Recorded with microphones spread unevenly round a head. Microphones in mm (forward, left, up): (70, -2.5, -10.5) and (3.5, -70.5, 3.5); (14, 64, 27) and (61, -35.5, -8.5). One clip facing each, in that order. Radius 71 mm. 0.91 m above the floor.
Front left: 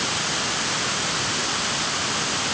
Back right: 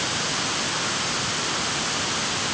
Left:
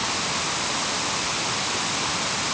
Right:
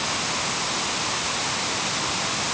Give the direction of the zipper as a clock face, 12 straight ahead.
No zipper in this recording.